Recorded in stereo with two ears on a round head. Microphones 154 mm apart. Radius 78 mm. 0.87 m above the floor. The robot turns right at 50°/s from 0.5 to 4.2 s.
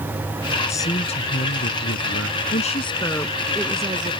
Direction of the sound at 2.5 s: 130° left.